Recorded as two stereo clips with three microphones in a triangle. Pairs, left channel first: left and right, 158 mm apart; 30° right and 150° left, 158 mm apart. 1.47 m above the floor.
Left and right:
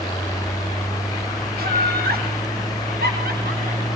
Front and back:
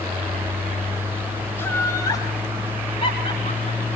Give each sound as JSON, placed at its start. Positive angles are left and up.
{"t": 1.6, "sound": "laughter", "azimuth_deg": -105, "distance_m": 3.0}